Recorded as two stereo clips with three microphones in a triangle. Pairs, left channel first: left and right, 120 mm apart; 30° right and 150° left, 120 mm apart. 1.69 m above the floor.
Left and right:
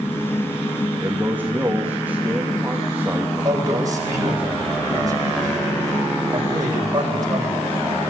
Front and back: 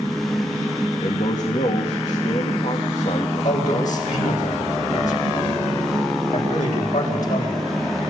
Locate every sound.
1.0 s a man speaking: 15° right, 2.5 m
3.4 s a man speaking: 30° right, 9 m